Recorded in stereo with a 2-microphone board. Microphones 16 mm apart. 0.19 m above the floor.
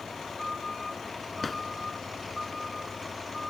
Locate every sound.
1.4 s a drawer: 10° left (ahead or behind)